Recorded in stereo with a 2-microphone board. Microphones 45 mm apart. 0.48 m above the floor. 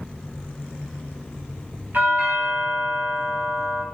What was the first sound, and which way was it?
A doorbell, 40° right (ahead or behind).